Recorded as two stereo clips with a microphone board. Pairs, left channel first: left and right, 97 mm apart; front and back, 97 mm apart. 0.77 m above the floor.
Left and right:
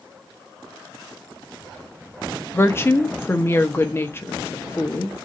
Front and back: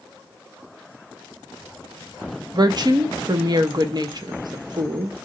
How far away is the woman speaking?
About 1.0 m.